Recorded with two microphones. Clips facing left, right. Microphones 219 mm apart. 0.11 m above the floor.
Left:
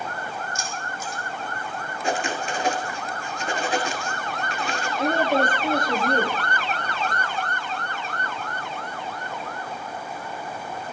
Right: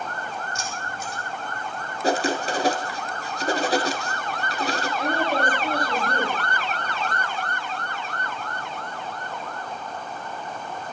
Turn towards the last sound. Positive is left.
turn(degrees=25)  # may be behind; listen again after turning